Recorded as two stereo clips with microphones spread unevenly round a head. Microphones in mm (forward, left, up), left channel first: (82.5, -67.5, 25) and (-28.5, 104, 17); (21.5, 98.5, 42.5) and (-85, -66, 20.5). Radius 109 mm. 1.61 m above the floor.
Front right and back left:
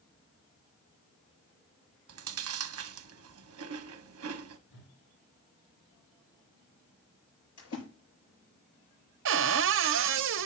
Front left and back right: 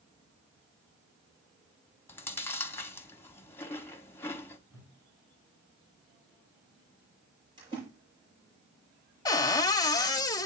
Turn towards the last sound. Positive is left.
turn(degrees=120)